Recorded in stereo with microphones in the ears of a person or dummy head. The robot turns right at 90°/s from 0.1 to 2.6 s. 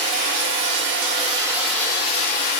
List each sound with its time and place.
0.0 s running water: 145° right, 2.5 m; by 2.6 s 80° left, 2.5 m